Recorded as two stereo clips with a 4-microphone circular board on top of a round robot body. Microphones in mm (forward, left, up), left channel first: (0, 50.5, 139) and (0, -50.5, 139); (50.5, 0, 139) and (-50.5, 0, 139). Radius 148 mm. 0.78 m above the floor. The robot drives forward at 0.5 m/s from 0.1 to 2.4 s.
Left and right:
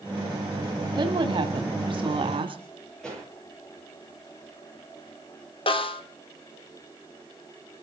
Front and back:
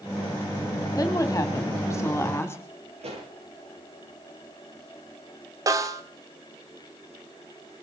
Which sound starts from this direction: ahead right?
A woman speaking, at 0.9 s.